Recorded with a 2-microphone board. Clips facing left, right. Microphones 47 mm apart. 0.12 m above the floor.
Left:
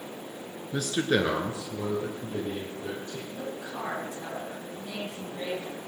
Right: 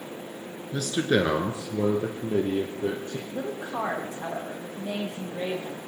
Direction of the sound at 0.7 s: 15° left (ahead or behind).